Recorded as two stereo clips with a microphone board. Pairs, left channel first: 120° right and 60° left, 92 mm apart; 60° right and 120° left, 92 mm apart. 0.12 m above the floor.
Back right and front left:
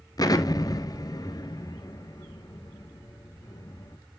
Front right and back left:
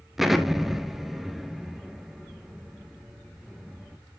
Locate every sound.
0.2 s an explosion: 150° right, 0.9 m